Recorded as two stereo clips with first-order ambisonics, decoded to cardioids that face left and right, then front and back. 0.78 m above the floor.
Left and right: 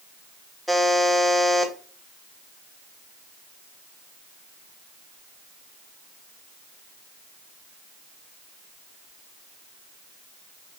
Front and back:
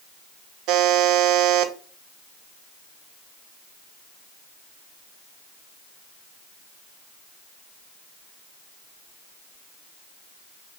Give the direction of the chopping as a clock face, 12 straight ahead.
No chopping in this recording.